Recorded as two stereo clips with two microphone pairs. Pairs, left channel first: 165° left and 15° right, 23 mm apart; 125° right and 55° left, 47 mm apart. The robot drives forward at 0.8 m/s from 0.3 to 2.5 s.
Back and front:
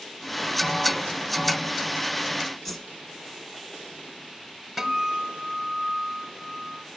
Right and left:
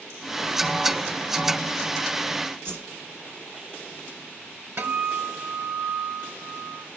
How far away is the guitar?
About 0.9 m.